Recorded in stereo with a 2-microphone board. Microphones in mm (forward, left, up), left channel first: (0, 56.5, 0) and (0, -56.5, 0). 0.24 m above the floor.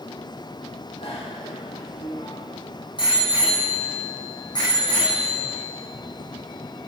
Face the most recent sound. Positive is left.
turn(degrees=40)  # may be behind; listen again after turning